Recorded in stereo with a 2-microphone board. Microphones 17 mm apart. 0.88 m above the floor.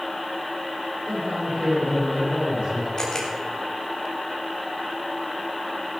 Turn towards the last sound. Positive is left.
turn(degrees=35)  # may be behind; listen again after turning